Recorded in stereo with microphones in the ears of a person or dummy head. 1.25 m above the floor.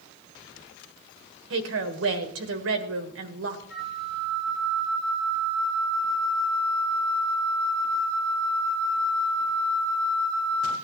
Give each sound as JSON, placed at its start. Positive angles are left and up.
{"t": 1.5, "sound": "a woman speaking", "side_deg": -60, "distance_m": 1.5}
{"t": 3.7, "sound": "a flute", "side_deg": 40, "distance_m": 9.5}